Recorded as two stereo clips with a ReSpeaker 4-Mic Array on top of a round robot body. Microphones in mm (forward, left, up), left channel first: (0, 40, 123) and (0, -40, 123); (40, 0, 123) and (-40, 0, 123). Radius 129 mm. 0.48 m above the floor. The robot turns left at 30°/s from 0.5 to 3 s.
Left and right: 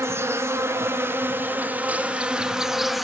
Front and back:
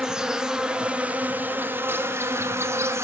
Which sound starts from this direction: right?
An insect, at 0.0 s.